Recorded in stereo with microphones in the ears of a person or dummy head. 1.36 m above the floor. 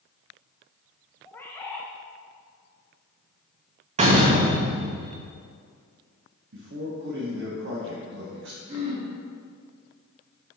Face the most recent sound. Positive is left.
turn(degrees=-35)  # may be behind; listen again after turning